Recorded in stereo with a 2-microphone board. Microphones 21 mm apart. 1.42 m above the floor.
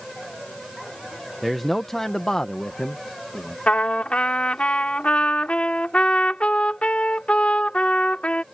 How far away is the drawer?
I don't hear a drawer.